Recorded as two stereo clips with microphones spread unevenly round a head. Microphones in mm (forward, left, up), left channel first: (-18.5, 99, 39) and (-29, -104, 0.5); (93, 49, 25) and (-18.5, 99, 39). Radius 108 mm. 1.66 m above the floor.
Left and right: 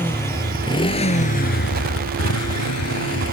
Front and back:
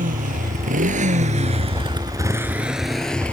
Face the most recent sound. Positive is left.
turn(degrees=55)